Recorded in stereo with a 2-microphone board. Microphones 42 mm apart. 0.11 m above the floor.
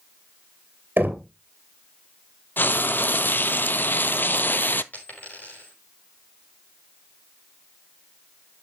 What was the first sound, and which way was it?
Knocking, 50° right (ahead or behind).